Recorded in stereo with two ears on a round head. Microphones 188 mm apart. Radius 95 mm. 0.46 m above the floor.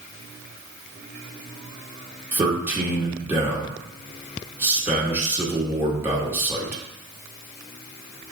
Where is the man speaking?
10° right (ahead or behind), 0.8 m.